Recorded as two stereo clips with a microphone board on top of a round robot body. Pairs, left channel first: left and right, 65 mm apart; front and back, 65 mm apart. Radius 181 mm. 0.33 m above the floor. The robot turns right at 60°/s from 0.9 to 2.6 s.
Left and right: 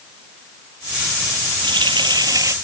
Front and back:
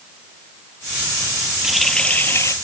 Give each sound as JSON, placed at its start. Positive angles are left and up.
{"t": 1.6, "sound": "a running tap", "azimuth_deg": -100}